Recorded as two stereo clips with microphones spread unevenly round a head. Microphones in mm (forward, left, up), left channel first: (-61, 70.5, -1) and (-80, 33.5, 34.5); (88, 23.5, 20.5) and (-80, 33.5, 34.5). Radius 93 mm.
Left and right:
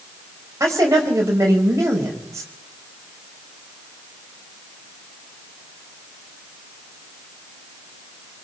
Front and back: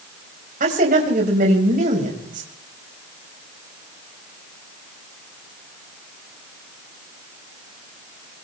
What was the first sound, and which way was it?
A woman speaking, 135° right.